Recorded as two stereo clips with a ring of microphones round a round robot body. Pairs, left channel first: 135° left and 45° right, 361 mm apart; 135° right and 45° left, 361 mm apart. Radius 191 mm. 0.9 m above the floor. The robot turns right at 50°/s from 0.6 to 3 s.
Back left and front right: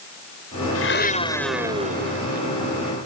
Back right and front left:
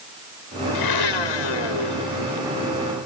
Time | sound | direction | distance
0.8 | a blender | 175° right | ?